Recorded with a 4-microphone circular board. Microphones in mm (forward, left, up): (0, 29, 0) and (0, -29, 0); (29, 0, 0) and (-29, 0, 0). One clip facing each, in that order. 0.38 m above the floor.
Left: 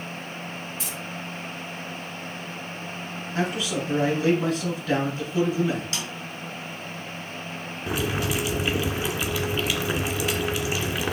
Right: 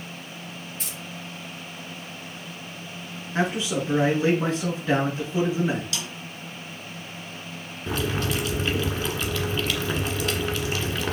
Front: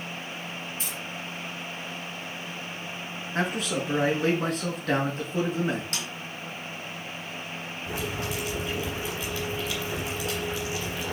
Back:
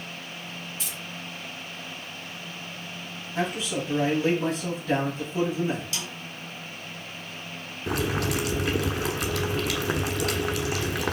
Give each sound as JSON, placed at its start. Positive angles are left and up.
{"t": 0.8, "sound": "keys jangling", "azimuth_deg": -50, "distance_m": 4.5}
{"t": 3.4, "sound": "a man speaking", "azimuth_deg": -30, "distance_m": 4.0}
{"t": 5.9, "sound": "a snare drum", "azimuth_deg": 35, "distance_m": 3.0}
{"t": 7.9, "sound": "boiling", "azimuth_deg": 170, "distance_m": 1.5}